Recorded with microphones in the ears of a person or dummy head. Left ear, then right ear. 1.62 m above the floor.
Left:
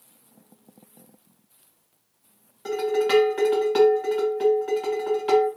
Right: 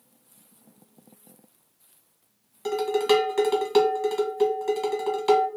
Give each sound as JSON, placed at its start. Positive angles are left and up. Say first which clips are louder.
{"t": 2.6, "sound": "dishes clattering", "louder": "even", "side_deg": -20, "distance_m": 1.0}